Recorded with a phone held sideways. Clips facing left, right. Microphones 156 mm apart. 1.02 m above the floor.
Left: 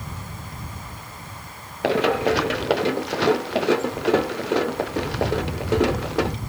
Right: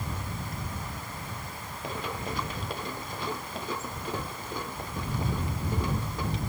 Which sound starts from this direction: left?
Running footsteps, at 1.8 s.